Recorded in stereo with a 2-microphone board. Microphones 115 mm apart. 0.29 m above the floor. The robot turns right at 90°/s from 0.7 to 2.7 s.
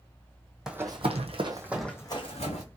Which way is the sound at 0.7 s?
5° right (ahead or behind).